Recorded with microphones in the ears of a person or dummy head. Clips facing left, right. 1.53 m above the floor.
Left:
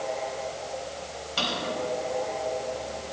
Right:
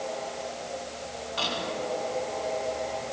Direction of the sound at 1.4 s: 50° left (ahead or behind).